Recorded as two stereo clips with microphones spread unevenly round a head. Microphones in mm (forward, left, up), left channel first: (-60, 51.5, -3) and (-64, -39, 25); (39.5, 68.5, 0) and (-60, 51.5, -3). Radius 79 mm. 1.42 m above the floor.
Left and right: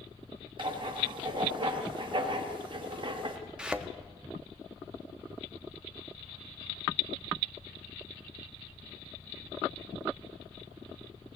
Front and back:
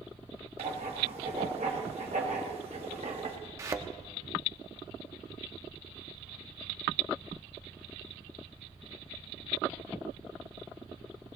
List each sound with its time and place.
0.6 s writing: 120° right, 1.9 m
3.6 s a thud: 130° right, 0.9 m